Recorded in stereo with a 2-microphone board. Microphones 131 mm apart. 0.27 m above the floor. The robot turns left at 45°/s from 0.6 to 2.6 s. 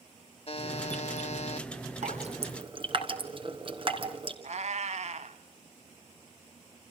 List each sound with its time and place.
0.5 s a buzzer: 115° left, 0.9 m; by 1.7 s 65° left, 0.9 m
2.0 s dripping: 65° right (ahead or behind), 3 m; by 4.3 s 45° right (ahead or behind), 3 m
4.4 s a cat meowing: 60° right (ahead or behind), 1.4 m